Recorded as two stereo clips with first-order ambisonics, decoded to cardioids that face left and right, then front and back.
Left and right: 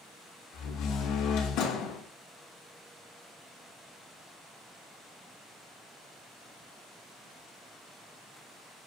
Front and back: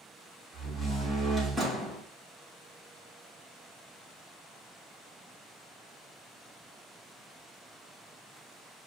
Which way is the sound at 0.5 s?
90° left.